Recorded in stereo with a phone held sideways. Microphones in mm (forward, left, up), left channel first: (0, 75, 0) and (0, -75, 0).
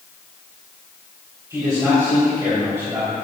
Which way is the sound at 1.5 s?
20° right (ahead or behind).